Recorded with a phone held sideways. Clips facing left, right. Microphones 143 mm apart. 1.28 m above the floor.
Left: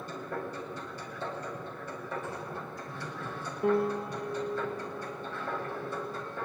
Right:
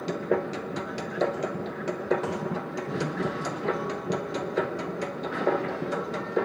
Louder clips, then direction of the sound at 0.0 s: Right 11 dB; 75° right (ahead or behind).